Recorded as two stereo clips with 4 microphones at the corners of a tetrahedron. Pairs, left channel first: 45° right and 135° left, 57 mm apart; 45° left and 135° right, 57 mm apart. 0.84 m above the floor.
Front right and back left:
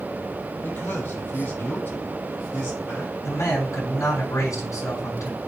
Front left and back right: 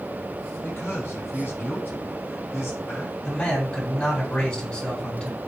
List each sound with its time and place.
0.6 s a man speaking: 5° left, 5.5 m
3.2 s a man speaking: 25° right, 6 m